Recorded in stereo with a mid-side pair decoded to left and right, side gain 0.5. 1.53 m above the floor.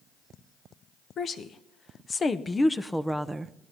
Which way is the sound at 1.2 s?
50° left.